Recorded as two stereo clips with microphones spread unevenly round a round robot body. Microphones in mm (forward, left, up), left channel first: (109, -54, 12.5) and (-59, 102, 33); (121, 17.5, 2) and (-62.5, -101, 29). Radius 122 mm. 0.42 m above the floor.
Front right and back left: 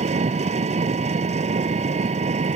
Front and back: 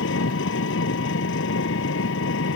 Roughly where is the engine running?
Left.